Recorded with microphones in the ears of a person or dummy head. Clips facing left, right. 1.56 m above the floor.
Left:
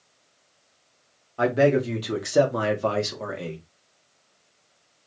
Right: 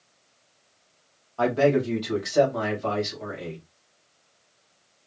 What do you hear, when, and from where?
1.4 s a man speaking: 20° left (ahead or behind), 1.6 m; by 3.6 s 70° left (ahead or behind), 1.6 m